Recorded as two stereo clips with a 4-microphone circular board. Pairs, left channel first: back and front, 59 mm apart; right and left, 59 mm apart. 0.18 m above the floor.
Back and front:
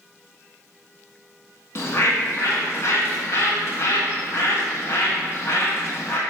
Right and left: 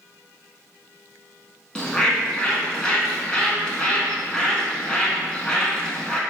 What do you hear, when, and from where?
1.8 s a bird: 160° right, 0.6 m